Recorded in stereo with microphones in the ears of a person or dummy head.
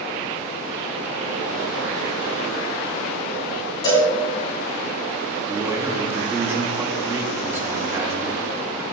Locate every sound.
3.8 s a cowbell: 25° left (ahead or behind), 3.5 m
5.5 s a man speaking: 15° right (ahead or behind), 1.3 m